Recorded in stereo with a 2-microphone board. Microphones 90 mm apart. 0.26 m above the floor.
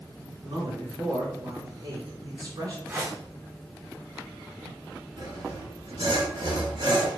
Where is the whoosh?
25° right (ahead or behind), 2 m.